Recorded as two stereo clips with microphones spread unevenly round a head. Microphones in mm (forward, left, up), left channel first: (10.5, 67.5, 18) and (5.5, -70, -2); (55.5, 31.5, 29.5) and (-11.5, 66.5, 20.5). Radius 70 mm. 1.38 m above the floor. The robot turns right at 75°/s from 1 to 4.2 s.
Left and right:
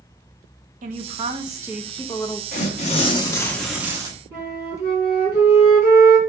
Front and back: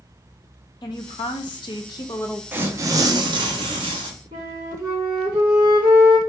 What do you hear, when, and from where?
0.8 s a woman speaking: 70° right, 0.9 m; by 2.4 s 35° left, 0.9 m
2.5 s tearing paper: 85° left, 1.1 m; by 4.1 s 155° right, 1.1 m
4.3 s a flute: 170° right, 2.5 m